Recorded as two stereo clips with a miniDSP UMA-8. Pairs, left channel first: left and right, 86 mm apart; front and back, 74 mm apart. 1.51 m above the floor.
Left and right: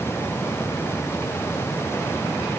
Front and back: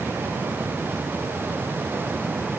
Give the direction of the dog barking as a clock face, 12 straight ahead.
No dog barking in this recording.